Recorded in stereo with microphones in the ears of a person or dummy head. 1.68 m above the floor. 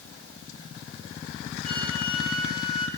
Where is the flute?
25° right (ahead or behind), 4.5 m.